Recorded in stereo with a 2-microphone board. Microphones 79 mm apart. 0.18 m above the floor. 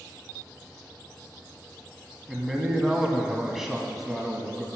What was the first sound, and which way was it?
A man speaking, 5° right (ahead or behind).